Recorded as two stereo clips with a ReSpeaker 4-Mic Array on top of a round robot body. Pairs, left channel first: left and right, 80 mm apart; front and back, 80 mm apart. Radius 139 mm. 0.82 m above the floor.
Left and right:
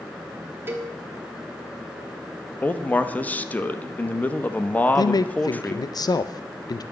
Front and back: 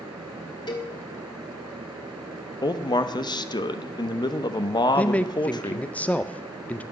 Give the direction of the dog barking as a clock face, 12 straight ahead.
I don't hear a dog barking.